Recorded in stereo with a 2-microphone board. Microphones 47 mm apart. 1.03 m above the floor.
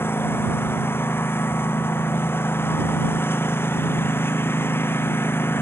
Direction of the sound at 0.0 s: 55° left (ahead or behind).